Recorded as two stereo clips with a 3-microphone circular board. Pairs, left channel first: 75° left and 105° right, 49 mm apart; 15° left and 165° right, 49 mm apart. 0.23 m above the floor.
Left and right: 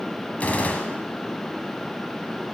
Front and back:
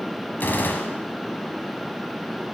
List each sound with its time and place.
0.4 s a gunshot: 30° left, 1.0 m